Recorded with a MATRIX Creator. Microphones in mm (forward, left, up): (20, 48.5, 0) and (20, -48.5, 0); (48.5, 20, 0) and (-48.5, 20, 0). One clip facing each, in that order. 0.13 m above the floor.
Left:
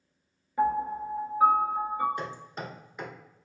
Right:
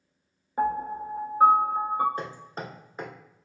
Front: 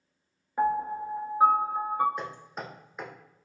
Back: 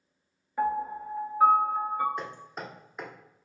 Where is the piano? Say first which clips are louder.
Even, front 2 dB; 70° right, 0.5 m.